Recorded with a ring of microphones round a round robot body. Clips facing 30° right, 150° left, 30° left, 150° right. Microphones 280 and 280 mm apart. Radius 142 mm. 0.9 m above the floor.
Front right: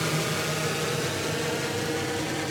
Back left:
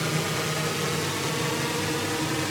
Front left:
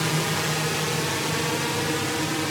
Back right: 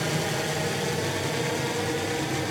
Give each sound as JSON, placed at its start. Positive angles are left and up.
{"t": 0.0, "sound": "a drone", "azimuth_deg": 60}